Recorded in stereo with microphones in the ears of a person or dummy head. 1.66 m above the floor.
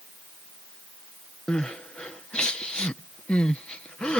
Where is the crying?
10° left (ahead or behind).